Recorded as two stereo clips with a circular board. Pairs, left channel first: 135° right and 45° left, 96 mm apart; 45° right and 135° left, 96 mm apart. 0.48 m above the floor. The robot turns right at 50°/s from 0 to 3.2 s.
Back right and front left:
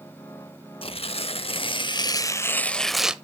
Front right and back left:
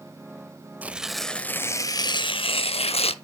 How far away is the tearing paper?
About 0.6 m.